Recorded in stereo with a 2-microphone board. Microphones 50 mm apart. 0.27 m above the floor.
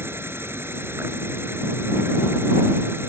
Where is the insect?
55° right (ahead or behind).